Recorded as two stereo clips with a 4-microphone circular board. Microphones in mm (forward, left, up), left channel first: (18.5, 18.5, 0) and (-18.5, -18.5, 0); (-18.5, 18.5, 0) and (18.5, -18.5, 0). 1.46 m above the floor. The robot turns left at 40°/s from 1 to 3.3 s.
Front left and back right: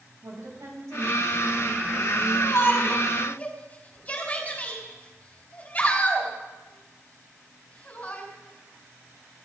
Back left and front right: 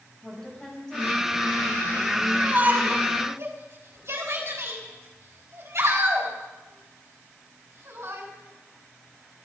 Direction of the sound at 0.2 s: 145° right.